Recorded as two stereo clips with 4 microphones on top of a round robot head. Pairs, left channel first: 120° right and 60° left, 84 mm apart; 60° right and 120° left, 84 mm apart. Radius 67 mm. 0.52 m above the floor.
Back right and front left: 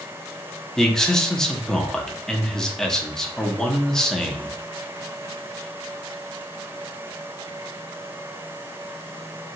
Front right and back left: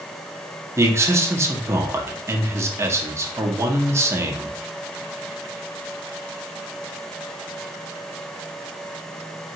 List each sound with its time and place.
0.8 s a man speaking: 160° left, 0.7 m